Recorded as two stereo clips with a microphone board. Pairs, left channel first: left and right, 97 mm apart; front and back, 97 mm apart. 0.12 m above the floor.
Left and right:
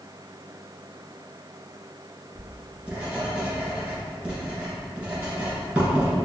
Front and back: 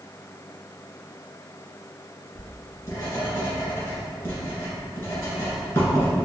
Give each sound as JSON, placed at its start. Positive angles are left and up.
{"t": 2.4, "sound": "writing", "azimuth_deg": -15, "distance_m": 1.7}